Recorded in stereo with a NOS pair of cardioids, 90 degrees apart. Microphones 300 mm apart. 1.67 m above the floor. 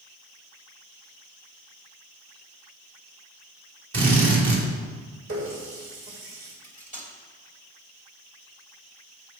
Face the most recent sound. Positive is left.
turn(degrees=-25)